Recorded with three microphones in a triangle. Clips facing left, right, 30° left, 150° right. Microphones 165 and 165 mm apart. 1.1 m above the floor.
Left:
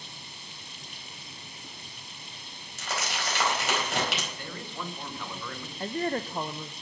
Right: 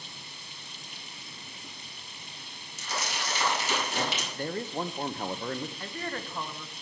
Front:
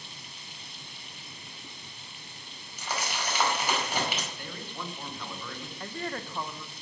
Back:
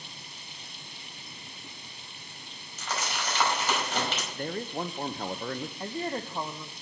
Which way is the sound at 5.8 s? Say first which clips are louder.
Left 7 dB, back 1 dB; 145° left.